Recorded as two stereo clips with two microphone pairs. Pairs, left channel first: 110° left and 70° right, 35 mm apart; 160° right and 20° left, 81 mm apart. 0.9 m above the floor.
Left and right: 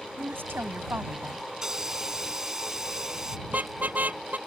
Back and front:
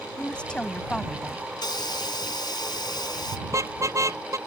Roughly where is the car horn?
Ahead right.